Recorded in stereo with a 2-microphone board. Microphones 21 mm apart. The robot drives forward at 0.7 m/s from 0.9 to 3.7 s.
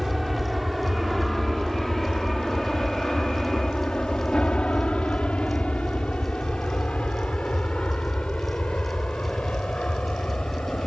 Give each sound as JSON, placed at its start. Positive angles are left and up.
{"t": 0.0, "sound": "an aircraft", "side_deg": 0}